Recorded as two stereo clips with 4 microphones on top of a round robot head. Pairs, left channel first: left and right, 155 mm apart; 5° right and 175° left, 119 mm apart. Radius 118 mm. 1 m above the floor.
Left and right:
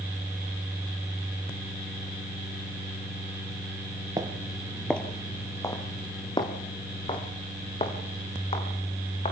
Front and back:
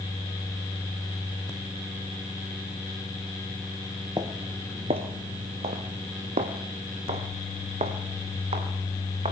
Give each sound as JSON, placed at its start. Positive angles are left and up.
{"t": 4.2, "sound": "footsteps", "azimuth_deg": -140, "distance_m": 1.0}